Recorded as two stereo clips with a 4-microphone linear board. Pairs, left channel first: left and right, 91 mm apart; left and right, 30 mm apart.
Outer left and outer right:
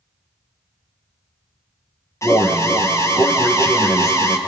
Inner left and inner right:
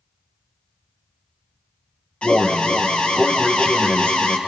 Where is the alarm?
35° left (ahead or behind), 1.7 m.